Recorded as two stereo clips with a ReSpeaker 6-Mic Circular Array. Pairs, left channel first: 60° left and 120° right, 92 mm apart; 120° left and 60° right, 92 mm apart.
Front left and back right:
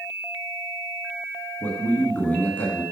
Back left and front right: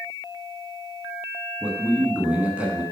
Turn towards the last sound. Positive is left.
turn(degrees=0)